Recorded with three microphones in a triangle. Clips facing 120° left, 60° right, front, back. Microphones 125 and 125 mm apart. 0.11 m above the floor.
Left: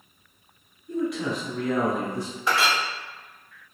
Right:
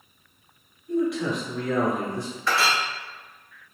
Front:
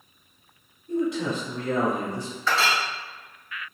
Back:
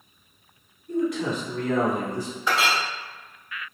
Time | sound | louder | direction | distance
0.9 | a man speaking | right 3 dB, even | 30° left | 1.5 m
2.5 | a clink | even, even | 140° left | 0.7 m